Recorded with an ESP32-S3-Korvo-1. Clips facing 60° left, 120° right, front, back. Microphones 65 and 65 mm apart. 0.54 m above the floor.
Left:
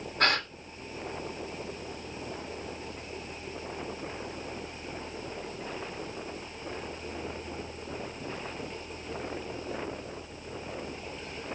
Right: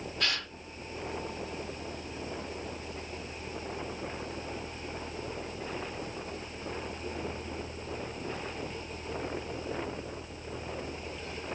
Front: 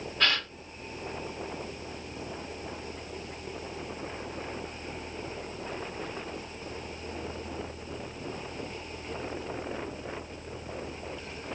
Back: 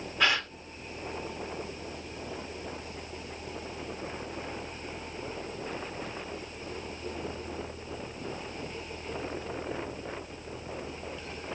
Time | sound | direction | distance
0.2 | a gasp | 100° left | 0.8 m